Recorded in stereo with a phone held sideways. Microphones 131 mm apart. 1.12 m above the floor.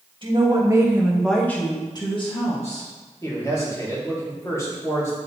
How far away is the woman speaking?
About 1.5 m.